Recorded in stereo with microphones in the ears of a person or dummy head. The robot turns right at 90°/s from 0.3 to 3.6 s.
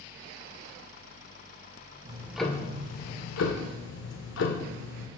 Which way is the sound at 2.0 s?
35° right.